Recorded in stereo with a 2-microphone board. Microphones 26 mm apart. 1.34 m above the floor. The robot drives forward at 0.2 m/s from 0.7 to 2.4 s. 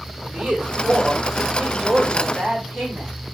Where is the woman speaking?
75° right (ahead or behind), 5 m.